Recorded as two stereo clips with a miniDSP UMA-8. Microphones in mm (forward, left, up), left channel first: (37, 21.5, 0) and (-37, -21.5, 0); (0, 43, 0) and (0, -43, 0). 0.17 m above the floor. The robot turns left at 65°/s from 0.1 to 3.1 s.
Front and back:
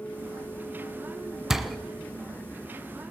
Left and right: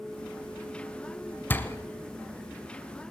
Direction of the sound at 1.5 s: 130° left.